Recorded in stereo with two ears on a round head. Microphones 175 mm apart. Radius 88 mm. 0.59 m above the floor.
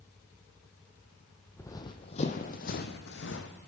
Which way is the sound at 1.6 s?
10° left (ahead or behind).